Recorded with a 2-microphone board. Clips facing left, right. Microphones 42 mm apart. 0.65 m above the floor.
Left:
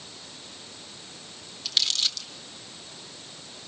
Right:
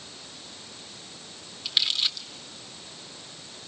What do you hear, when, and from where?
1.6 s crumpling: 15° right (ahead or behind), 2 m